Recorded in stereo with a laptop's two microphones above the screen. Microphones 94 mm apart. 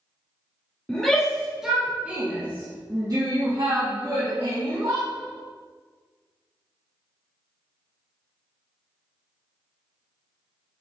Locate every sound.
0.9 s a shout: 10° left (ahead or behind), 2.5 m; by 5.1 s 75° right (ahead or behind), 2.5 m